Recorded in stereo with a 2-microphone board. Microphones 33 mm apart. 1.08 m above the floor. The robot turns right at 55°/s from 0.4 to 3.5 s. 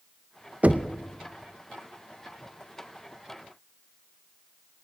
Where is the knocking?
40° right (ahead or behind), 0.6 m; by 0.9 s 55° right (ahead or behind), 0.6 m.